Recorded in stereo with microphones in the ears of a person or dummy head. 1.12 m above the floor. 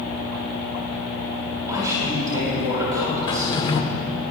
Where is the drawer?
25° left (ahead or behind), 0.9 m.